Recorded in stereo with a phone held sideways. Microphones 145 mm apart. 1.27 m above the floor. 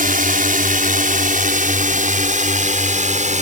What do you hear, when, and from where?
0.0 s a drone: 75° right (ahead or behind); by 3.4 s 60° right (ahead or behind)